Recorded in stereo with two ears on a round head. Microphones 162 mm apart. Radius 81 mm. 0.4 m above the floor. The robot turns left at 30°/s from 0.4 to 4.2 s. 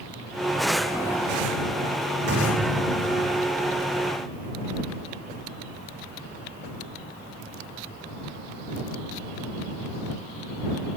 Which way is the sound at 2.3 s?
65° right.